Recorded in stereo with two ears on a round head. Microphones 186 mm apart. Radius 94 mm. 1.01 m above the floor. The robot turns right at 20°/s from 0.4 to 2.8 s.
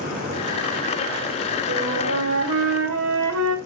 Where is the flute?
70° right (ahead or behind), 3.5 m; by 3.5 s 85° right, 3.5 m.